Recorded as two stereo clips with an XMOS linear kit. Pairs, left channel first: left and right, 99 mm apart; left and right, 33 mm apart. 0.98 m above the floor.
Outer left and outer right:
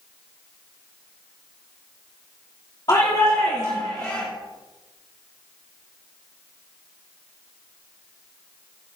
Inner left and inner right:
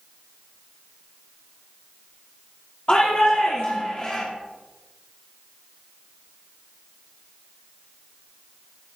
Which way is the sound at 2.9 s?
45° left (ahead or behind).